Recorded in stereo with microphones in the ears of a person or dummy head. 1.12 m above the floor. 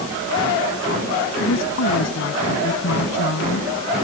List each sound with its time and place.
1.4 s a woman speaking: 70° left (ahead or behind)